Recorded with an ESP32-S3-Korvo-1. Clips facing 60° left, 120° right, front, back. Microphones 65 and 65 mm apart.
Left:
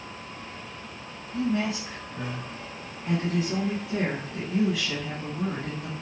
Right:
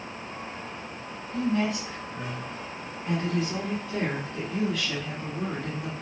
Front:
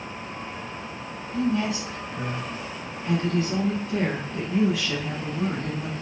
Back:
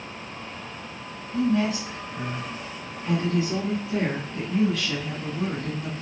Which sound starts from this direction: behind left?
A woman speaking, at 1.3 s.